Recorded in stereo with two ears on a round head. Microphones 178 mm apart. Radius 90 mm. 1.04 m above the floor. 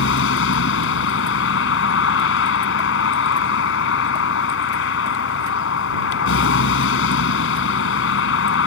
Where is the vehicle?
75° left (ahead or behind).